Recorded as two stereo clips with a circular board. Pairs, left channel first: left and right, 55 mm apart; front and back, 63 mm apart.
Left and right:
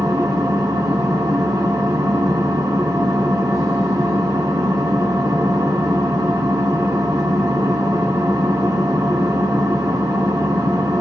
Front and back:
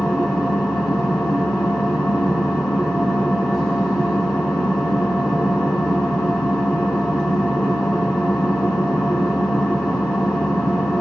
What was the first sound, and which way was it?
An engine running, 75° right.